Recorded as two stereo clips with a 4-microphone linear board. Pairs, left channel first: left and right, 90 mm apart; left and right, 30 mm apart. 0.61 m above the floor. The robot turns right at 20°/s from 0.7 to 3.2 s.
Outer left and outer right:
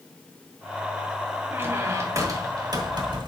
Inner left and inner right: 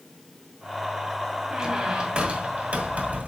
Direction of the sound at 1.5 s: 155° right.